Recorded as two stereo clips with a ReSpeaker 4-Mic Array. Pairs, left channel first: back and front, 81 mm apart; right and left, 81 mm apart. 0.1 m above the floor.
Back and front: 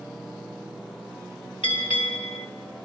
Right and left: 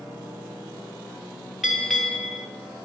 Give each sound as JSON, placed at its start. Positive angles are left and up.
{"t": 1.6, "sound": "a bell", "azimuth_deg": 180, "distance_m": 4.0}